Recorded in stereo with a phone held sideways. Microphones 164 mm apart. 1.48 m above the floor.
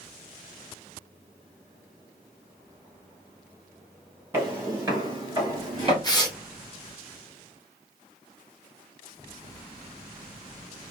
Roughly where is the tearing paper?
Left.